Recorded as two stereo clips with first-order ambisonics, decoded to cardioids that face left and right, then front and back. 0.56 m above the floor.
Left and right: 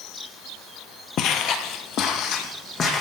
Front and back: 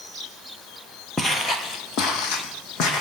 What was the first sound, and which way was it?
Footsteps, 75° left.